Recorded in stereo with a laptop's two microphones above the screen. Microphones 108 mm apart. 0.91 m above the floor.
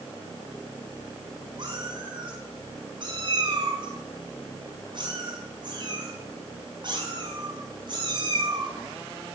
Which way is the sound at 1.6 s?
45° right (ahead or behind).